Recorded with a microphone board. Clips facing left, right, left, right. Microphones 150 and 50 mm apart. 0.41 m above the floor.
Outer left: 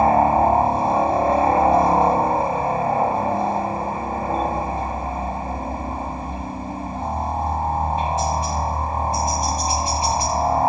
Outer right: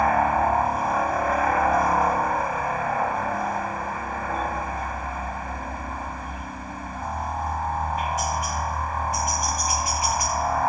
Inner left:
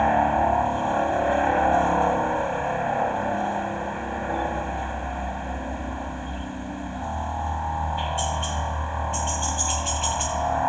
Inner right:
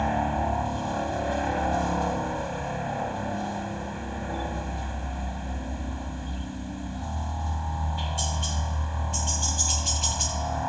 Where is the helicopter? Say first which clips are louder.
Outer left 5 dB, inner left 6 dB; 25° left (ahead or behind).